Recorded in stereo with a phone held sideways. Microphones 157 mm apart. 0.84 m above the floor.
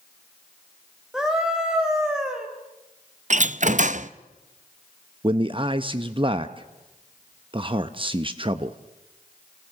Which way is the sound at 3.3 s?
50° right (ahead or behind).